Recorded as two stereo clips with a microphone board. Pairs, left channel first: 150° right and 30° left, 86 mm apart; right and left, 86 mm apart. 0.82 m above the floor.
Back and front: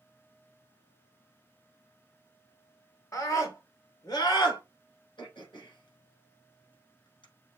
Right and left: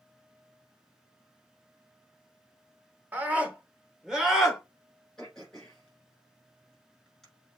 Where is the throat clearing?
175° right, 5 m.